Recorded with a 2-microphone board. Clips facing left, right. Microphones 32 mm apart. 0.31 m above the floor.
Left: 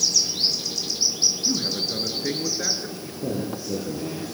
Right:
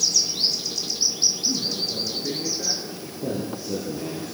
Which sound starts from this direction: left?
A man speaking, at 1.4 s.